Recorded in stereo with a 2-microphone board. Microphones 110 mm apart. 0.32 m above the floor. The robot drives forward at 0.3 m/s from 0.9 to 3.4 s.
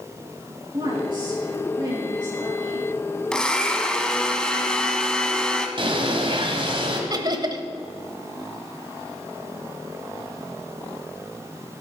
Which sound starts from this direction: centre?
A blender, at 3.3 s.